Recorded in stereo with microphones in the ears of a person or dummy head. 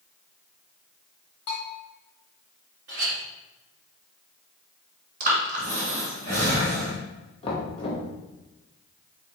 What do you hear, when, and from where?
1.5 s a bell: 70° left (ahead or behind), 1.2 m
2.9 s a clink: 70° right (ahead or behind), 1.4 m
5.2 s breathing: 50° right (ahead or behind), 2.5 m
7.4 s knocking: 35° left (ahead or behind), 1.1 m